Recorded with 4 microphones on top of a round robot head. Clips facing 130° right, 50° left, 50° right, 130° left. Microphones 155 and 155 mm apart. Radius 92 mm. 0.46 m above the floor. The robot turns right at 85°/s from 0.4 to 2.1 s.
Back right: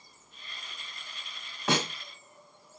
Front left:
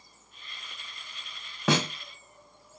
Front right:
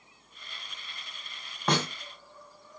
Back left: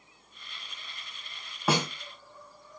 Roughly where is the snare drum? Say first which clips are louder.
Front left 3 dB, back left 1 dB; ahead left.